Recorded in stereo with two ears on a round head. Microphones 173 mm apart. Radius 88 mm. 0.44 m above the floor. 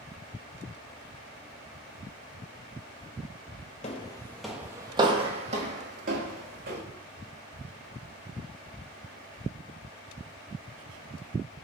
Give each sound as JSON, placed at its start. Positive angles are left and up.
{"t": 3.8, "sound": "footsteps", "side_deg": 35, "distance_m": 0.5}